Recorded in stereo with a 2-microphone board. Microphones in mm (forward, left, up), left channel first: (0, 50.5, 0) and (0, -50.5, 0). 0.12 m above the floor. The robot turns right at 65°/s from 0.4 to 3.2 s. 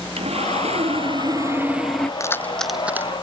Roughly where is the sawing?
Right.